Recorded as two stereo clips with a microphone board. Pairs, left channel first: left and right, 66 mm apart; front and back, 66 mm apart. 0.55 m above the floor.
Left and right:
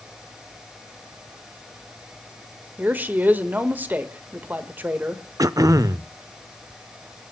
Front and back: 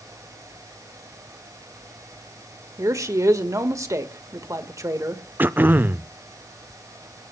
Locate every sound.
2.8 s a woman speaking: 150° right, 1.4 m
5.4 s throat clearing: 120° right, 0.5 m